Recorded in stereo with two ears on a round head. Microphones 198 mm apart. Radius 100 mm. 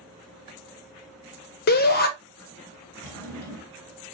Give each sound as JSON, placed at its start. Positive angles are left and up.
{"t": 1.7, "sound": "a shout", "side_deg": 45, "distance_m": 0.7}
{"t": 3.0, "sound": "a drawer", "side_deg": 10, "distance_m": 2.0}